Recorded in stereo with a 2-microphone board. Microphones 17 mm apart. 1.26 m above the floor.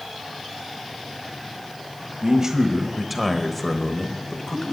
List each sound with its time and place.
2.2 s a man speaking: 40° right (ahead or behind), 1.3 m; by 4.7 s 40° left (ahead or behind), 1.9 m